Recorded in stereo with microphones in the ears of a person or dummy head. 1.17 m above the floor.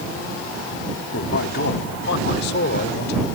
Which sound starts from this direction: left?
A man speaking, at 1.1 s.